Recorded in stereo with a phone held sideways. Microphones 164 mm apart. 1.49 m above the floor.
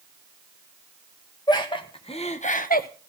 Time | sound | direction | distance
1.5 | laughter | 25° left (ahead or behind) | 2 m